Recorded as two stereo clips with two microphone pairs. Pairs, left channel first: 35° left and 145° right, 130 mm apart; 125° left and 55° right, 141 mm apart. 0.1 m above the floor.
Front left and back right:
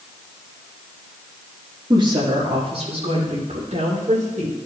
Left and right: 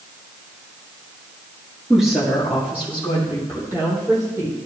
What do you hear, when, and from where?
1.9 s a woman speaking: 145° right, 1.8 m; by 4.5 s 125° right, 4.5 m